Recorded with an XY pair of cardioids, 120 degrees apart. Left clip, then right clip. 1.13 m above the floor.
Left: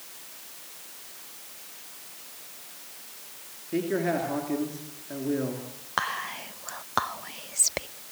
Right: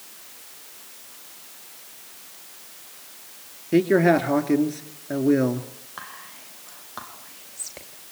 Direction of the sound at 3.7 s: 60° right.